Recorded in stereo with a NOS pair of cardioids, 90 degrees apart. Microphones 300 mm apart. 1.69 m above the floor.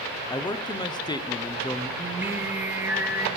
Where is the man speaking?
15° left, 0.8 m.